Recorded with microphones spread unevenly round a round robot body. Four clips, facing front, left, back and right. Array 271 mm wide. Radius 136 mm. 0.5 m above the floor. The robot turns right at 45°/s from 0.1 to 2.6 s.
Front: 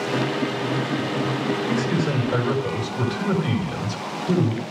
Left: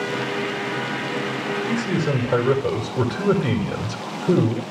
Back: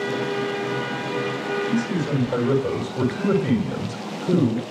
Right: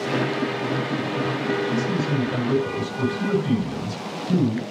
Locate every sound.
1.7 s a man speaking: 60° left, 6.5 m; by 4.6 s 100° left, 6.5 m